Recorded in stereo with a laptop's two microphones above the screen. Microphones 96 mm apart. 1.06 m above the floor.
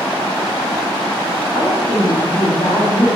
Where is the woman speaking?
75° left (ahead or behind), 2.5 m.